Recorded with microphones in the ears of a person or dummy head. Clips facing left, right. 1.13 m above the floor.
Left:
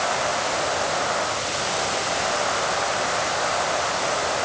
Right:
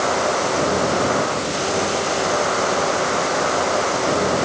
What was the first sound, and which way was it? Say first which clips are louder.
A machine running: right 5 dB; 50° right (ahead or behind).